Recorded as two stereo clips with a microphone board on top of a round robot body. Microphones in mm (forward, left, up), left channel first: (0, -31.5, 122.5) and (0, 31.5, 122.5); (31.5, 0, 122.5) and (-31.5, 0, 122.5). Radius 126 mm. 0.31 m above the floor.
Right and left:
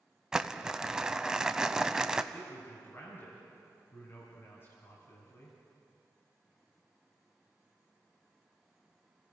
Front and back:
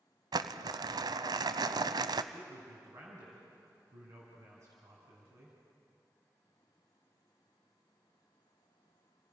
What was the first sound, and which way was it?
Crumpling, 170° left.